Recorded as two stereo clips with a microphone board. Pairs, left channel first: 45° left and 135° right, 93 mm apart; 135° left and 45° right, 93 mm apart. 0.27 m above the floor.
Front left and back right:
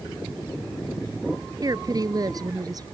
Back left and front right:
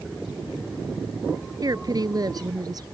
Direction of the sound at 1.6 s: 90° right.